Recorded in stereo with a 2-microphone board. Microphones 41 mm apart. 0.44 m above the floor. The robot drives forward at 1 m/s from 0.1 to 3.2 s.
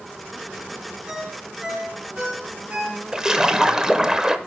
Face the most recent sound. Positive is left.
turn(degrees=-15)  # may be behind; listen again after turning